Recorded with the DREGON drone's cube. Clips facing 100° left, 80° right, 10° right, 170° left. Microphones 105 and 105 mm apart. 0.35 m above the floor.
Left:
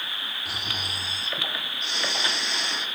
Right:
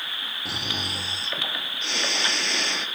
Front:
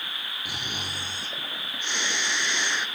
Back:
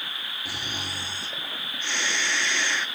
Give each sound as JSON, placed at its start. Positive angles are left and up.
{"t": 0.5, "sound": "snoring", "azimuth_deg": -85, "distance_m": 1.6}